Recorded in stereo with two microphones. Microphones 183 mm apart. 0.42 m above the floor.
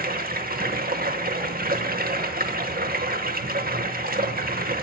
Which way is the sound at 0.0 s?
55° right (ahead or behind).